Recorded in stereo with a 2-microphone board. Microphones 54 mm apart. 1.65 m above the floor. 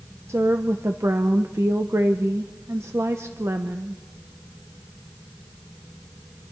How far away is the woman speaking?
About 0.9 m.